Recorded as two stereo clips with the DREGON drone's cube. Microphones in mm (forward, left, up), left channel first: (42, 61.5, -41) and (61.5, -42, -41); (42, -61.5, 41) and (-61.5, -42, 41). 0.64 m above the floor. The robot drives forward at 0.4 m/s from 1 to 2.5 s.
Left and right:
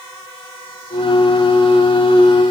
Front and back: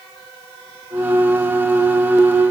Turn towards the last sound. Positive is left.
No sound to turn to.